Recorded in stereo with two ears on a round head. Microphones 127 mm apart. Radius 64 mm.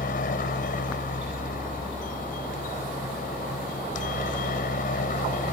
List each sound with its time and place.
0.0 s a helicopter: 65° left (ahead or behind); by 5.5 s 60° left (ahead or behind)